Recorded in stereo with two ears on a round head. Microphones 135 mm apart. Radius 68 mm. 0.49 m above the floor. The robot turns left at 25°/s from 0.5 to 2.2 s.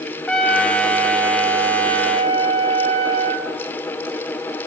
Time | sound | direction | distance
0.3 | a trumpet | 5° left | 0.6 m